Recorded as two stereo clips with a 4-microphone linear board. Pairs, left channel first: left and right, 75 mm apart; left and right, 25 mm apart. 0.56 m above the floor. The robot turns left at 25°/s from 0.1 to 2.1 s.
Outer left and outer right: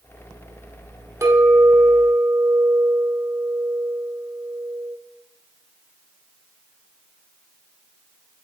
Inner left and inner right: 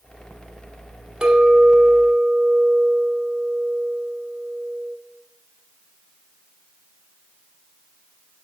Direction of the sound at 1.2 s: 40° right (ahead or behind).